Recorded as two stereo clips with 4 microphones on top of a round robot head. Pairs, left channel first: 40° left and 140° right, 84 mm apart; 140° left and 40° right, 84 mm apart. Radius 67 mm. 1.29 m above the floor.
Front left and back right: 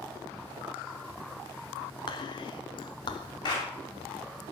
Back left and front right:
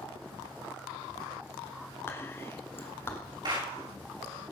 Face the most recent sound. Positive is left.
turn(degrees=0)